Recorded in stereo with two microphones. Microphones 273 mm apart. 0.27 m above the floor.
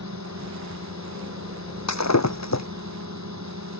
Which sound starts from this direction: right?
A drone, at 0.0 s.